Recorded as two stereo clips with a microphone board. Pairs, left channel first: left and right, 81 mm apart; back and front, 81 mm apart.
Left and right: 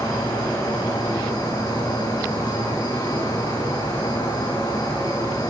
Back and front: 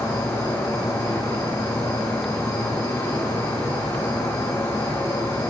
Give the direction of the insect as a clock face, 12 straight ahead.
8 o'clock.